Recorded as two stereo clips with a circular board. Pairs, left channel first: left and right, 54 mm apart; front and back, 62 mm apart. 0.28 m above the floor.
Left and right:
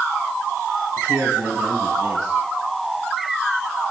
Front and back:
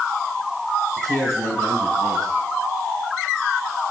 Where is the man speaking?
150° right, 4 m.